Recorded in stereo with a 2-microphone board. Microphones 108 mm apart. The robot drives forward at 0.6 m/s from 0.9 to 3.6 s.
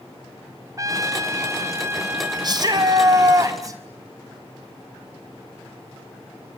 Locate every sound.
0.8 s a trumpet: 30° right (ahead or behind), 1.3 m; by 3.4 s 15° right (ahead or behind), 2.5 m
2.4 s a shout: 40° right (ahead or behind), 2.5 m; by 3.8 s 30° right (ahead or behind), 3.5 m